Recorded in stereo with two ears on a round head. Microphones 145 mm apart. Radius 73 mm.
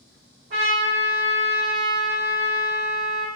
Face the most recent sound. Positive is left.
turn(degrees=-65)  # may be behind; listen again after turning